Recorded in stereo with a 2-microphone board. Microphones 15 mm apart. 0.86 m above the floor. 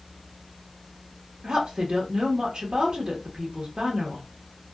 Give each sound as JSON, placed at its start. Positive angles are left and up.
{"t": 1.4, "sound": "a woman speaking", "side_deg": -60, "distance_m": 1.1}